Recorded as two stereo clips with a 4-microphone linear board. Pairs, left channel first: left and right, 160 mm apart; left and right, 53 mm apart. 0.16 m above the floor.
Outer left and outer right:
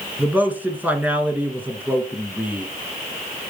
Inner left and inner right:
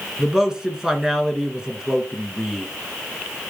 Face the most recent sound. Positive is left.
turn(degrees=-10)  # may be behind; listen again after turning